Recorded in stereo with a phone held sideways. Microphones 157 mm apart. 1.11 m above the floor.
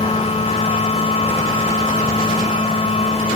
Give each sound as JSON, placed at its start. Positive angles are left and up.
{"t": 0.0, "sound": "a machine running", "side_deg": 40}